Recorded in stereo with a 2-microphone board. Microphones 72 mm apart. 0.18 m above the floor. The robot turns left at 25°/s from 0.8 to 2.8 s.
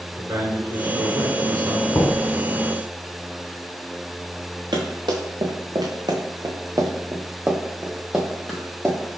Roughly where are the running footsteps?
Right.